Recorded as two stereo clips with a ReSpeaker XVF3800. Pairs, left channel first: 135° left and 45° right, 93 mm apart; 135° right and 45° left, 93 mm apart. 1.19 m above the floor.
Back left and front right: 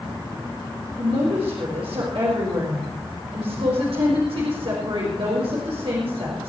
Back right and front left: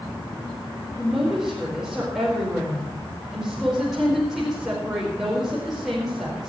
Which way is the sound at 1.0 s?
40° right.